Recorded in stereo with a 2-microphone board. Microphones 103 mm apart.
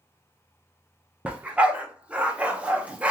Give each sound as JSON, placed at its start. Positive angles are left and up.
{"t": 1.2, "sound": "a dog barking", "side_deg": -15, "distance_m": 0.6}